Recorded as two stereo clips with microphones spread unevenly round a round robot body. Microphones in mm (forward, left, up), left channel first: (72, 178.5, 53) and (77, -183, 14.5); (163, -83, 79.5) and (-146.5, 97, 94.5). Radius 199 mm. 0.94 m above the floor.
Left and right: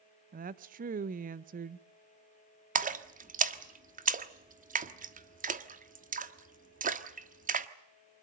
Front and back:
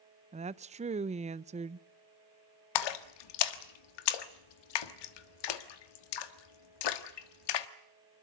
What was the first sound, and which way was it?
A woman speaking, 140° right.